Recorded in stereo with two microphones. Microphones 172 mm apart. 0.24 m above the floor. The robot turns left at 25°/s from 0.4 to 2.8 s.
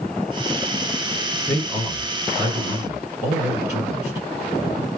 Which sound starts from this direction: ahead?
A man speaking, at 1.5 s.